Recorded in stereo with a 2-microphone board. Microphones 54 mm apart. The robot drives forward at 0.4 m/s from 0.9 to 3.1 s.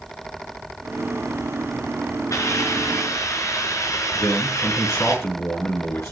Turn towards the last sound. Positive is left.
turn(degrees=50)  # may be behind; listen again after turning